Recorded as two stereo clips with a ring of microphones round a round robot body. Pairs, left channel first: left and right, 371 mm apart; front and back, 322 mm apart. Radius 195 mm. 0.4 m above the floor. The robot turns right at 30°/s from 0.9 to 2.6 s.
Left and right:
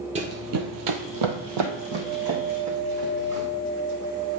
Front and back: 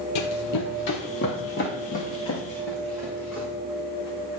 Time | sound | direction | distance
0.1 | running footsteps | 15° right | 0.8 m